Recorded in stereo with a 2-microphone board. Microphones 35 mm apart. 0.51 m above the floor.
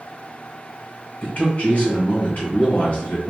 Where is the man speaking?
50° left (ahead or behind), 2 m.